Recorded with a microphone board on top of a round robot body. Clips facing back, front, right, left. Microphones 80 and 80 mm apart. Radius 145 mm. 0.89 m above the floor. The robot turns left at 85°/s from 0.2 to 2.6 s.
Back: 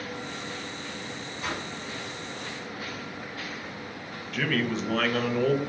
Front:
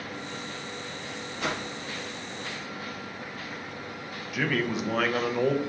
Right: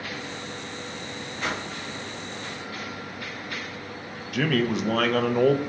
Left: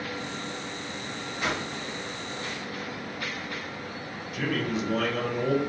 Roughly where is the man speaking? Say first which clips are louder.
Even, right 5 dB; right.